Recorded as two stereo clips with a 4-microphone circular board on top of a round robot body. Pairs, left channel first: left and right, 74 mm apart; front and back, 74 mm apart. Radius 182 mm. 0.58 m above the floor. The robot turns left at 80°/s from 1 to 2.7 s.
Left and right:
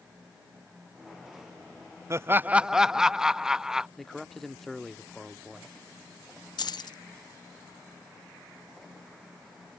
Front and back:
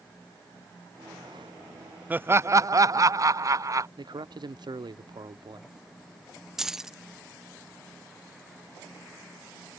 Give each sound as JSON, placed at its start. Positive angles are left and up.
{"t": 2.1, "sound": "laughter", "azimuth_deg": -120}
{"t": 4.0, "sound": "a man speaking", "azimuth_deg": 175}
{"t": 6.6, "sound": "keys jangling", "azimuth_deg": 95}